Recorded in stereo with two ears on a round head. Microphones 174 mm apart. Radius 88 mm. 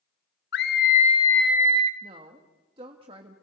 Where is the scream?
55° left (ahead or behind), 1.4 m; by 1.9 s 35° right (ahead or behind), 1.1 m.